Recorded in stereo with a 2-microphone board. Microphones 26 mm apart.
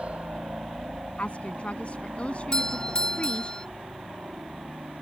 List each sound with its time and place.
0.0 s a helicopter: 55° right (ahead or behind); by 5.0 s 70° right (ahead or behind)
1.2 s a woman speaking: 50° left (ahead or behind)
2.5 s a doorbell: 30° left (ahead or behind)